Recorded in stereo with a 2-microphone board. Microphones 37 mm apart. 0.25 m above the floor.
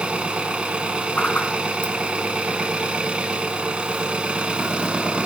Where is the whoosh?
50° left (ahead or behind), 1.4 m.